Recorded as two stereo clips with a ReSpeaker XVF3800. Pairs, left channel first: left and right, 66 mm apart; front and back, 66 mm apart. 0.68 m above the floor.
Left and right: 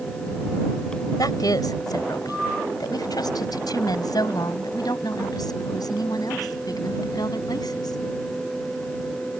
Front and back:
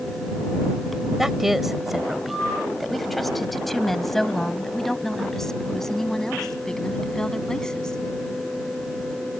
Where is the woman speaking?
95° left; by 8.0 s 80° left.